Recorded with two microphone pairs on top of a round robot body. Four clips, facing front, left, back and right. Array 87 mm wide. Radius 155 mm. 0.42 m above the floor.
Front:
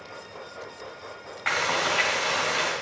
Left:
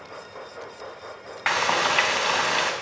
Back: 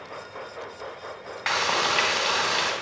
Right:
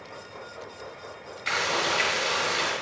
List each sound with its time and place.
1.5 s frying: 100° left, 3 m